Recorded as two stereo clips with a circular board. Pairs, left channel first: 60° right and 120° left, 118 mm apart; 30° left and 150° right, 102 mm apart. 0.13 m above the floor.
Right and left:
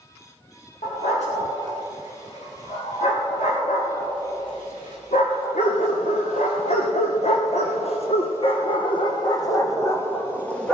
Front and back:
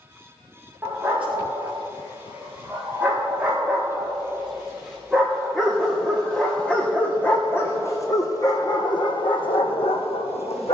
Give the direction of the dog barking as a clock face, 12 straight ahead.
3 o'clock.